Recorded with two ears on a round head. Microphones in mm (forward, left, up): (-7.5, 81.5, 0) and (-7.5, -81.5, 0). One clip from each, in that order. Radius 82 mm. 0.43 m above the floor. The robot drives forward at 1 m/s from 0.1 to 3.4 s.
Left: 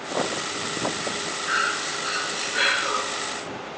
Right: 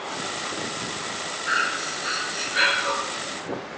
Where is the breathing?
25° right (ahead or behind), 4.5 m; by 2.9 s 20° right (ahead or behind), 5.5 m.